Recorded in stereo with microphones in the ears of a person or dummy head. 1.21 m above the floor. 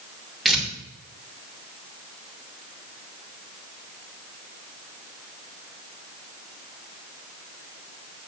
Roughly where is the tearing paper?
Centre.